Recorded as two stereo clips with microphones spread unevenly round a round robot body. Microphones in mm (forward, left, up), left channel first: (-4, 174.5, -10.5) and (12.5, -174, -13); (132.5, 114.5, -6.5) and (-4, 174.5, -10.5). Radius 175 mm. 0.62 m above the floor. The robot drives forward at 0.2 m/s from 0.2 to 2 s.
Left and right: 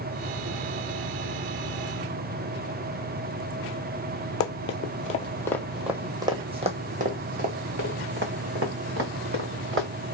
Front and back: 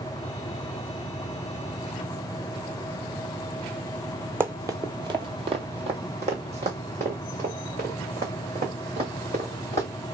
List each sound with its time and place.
4.4 s running footsteps: 90° left, 0.7 m; by 9.9 s 145° right, 2.5 m